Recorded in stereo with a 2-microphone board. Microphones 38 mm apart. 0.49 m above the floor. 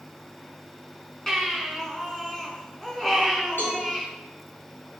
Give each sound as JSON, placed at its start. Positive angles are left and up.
{"t": 1.3, "sound": "a baby crying", "side_deg": 10, "distance_m": 3.5}
{"t": 3.6, "sound": "a cowbell", "side_deg": 65, "distance_m": 5.0}